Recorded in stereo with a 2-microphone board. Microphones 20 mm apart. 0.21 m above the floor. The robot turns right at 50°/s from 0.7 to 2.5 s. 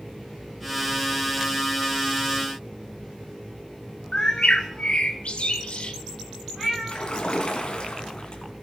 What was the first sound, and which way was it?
A bird, 50° left (ahead or behind).